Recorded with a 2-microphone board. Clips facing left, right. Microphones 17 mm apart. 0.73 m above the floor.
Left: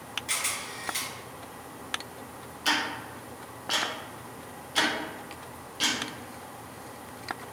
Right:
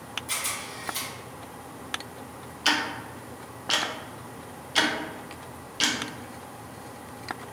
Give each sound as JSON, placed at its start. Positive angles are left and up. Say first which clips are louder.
{"t": 0.3, "sound": "a camera shutter", "louder": "left 1 dB", "side_deg": 45, "distance_m": 1.9}
{"t": 2.6, "sound": "ticking", "louder": "right 2 dB", "side_deg": -40, "distance_m": 0.5}